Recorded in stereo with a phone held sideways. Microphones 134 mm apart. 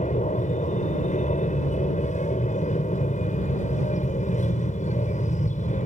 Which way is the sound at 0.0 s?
65° left (ahead or behind).